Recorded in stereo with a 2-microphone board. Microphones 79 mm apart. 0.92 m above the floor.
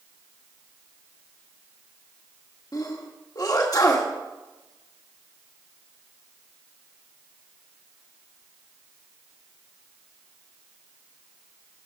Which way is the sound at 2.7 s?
50° left (ahead or behind).